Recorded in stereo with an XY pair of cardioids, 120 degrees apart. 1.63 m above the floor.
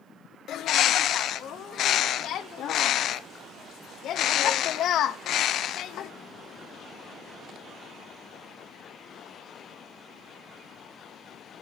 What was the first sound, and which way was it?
A bird, 60° left.